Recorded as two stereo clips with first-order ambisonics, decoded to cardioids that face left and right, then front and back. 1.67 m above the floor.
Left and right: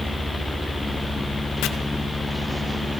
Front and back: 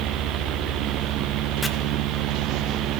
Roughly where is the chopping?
Left.